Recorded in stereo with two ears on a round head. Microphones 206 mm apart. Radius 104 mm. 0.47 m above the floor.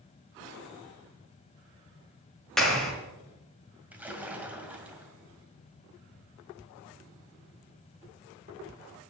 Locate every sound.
2.6 s a clap: centre (ahead or behind), 5 m
3.9 s a splash: 5° right (ahead or behind), 2 m